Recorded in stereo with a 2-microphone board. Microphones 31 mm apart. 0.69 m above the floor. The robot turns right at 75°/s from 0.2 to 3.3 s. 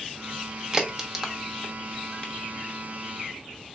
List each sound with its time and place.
0.7 s a crack: 20° right (ahead or behind), 0.7 m; by 2.3 s 30° left (ahead or behind), 0.7 m